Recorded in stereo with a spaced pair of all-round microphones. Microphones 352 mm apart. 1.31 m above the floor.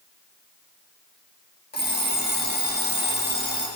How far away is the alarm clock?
About 1.2 m.